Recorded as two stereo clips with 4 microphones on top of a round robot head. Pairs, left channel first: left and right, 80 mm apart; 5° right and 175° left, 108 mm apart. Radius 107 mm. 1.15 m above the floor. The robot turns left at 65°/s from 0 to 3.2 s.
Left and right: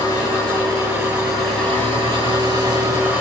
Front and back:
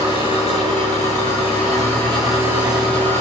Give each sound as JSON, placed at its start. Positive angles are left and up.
{"t": 0.0, "sound": "an engine running", "azimuth_deg": 50, "distance_m": 8.0}